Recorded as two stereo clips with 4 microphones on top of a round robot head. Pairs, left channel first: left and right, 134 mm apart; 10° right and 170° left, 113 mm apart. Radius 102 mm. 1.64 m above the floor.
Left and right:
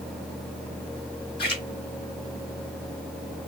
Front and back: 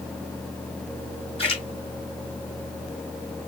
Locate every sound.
1.4 s a splash: 30° left, 3.5 m